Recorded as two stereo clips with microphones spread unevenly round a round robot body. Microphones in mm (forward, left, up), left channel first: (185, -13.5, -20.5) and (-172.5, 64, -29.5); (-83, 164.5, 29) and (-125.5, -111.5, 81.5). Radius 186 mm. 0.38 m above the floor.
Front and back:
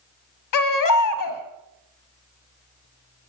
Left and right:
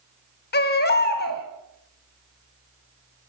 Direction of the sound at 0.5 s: 30° left.